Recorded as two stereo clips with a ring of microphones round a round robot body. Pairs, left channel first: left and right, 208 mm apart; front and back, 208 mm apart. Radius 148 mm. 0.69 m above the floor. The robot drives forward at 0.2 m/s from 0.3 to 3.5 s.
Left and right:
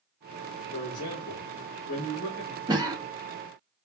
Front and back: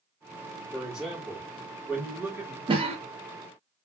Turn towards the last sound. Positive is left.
turn(degrees=-155)